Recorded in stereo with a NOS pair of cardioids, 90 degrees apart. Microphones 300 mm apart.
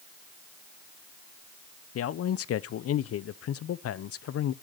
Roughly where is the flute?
No flute in this recording.